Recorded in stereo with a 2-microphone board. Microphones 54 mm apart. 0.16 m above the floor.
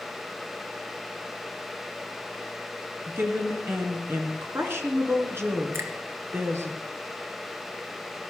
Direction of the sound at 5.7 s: 55° right (ahead or behind).